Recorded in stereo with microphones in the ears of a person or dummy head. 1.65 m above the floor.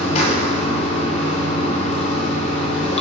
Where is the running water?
35° left (ahead or behind), 1.2 m.